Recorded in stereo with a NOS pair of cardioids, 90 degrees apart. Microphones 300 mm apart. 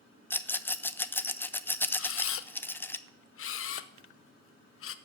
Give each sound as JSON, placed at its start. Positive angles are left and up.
{"t": 0.3, "sound": "a rattle", "azimuth_deg": 5, "distance_m": 0.5}
{"t": 2.0, "sound": "a camera shutter", "azimuth_deg": 50, "distance_m": 0.6}